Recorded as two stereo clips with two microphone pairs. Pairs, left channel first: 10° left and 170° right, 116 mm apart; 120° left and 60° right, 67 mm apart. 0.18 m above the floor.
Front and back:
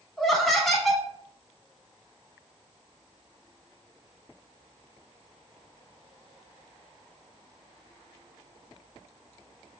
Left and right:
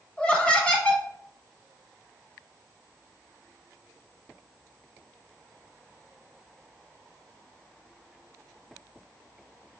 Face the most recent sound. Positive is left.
turn(degrees=95)